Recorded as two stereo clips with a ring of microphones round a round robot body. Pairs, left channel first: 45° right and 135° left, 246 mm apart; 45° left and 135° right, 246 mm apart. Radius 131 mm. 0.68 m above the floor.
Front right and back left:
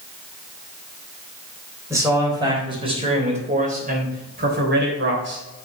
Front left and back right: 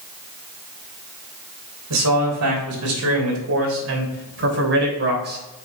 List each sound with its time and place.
1.9 s a man speaking: 145° right, 3.5 m; by 5.4 s 175° left, 3.5 m